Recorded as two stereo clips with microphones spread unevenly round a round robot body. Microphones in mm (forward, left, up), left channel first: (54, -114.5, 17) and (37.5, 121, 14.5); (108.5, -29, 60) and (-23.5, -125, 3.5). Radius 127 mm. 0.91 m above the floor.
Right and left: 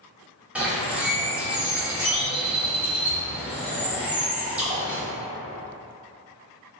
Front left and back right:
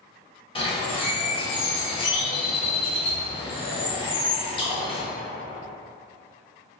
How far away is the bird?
About 0.6 m.